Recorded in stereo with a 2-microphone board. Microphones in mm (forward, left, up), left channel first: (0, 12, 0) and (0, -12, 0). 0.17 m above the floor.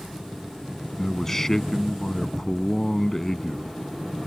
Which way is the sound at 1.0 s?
20° left (ahead or behind).